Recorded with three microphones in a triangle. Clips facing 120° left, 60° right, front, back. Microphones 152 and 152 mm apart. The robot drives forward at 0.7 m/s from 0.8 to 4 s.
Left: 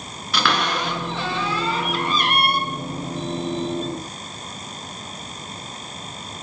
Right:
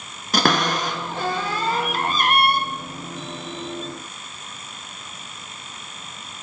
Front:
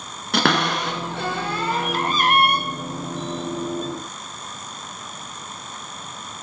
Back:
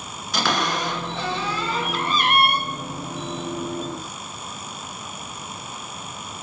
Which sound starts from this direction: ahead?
A cupboard door, at 0.3 s.